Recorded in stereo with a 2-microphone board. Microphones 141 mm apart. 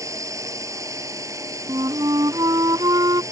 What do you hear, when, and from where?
0.0 s a drone: 20° right (ahead or behind)
1.7 s a flute: 30° right (ahead or behind)